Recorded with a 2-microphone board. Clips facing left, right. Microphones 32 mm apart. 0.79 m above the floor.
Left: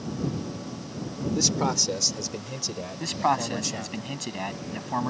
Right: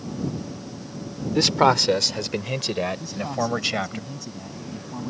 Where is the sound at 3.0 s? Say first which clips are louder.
Left 2 dB; 75° left (ahead or behind).